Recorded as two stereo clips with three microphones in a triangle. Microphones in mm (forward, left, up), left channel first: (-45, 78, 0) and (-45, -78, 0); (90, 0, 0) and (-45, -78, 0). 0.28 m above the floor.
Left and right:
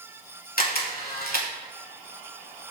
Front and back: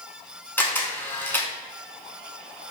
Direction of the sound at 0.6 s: 105° left.